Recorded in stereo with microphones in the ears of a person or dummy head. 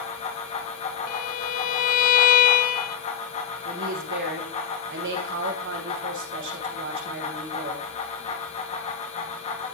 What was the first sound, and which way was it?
A fan, 35° left (ahead or behind).